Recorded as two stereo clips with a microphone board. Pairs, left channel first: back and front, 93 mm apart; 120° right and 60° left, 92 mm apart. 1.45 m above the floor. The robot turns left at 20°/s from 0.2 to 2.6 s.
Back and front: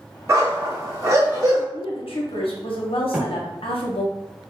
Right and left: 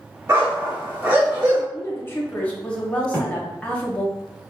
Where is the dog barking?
30° left, 1.2 m; by 1.6 s straight ahead, 1.2 m.